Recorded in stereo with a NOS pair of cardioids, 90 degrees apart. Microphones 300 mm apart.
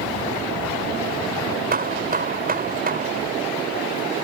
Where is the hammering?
30° right.